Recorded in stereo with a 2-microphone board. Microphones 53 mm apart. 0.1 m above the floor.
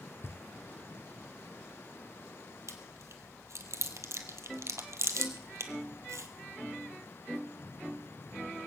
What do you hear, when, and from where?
0.2 s knocking: 50° left (ahead or behind), 1.2 m
2.7 s chewing: 65° right (ahead or behind), 1.3 m